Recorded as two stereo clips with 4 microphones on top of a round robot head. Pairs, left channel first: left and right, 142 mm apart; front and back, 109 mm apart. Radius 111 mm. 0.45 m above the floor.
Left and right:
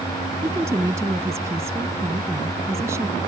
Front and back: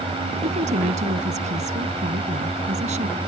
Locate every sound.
0.4 s a woman speaking: 165° right